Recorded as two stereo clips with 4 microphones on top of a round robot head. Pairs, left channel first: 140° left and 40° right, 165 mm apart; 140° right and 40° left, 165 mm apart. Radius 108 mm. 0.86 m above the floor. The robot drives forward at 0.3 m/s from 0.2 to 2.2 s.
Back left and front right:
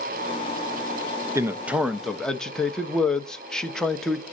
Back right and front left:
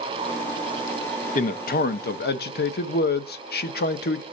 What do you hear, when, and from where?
1.4 s a man speaking: 110° right, 0.6 m; by 4.2 s 135° right, 0.7 m